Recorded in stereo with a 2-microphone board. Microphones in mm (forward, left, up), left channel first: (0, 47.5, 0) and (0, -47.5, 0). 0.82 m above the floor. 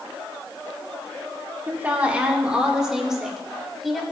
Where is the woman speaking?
20° right (ahead or behind), 2.0 m; by 4.0 s centre (ahead or behind), 3 m.